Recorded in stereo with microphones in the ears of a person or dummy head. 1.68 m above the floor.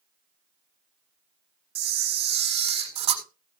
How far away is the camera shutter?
About 1.4 m.